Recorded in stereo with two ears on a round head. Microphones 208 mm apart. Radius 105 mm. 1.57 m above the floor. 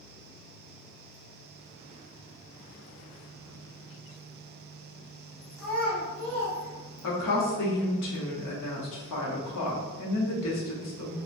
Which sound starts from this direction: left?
A woman speaking, at 7.0 s.